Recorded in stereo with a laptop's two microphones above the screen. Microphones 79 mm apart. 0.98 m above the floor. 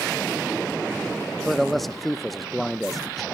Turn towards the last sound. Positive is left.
turn(degrees=0)  # may be behind; listen again after turning